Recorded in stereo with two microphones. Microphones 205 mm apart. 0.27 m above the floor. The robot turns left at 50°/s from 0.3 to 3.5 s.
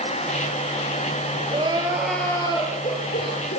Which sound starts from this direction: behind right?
Crying, at 1.5 s.